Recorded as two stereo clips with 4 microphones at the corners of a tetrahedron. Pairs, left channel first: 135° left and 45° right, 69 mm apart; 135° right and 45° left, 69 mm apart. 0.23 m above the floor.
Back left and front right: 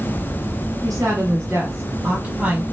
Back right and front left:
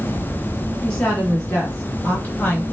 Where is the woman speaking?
55° right, 1.5 m; by 2.6 s 110° right, 1.1 m.